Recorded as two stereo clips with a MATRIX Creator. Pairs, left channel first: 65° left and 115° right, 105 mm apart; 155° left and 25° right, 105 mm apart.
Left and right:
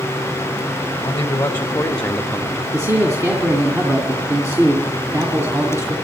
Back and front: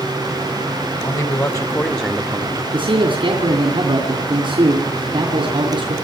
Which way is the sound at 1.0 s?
125° left.